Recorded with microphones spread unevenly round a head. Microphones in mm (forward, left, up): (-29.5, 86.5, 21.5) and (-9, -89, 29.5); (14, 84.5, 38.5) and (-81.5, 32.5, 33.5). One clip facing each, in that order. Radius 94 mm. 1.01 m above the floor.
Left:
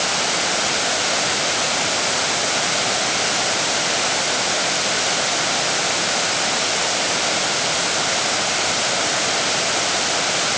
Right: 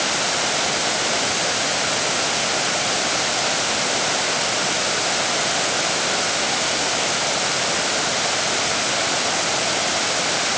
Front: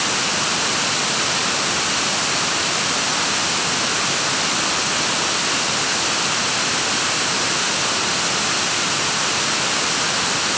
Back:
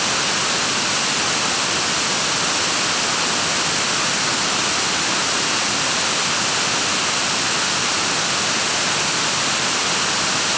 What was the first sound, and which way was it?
Only background noise.